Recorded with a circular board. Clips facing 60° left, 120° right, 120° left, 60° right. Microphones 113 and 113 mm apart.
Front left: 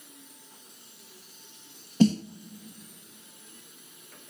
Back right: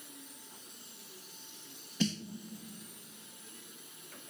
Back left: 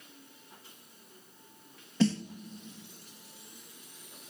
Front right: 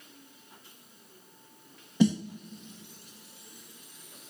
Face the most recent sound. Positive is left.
turn(degrees=15)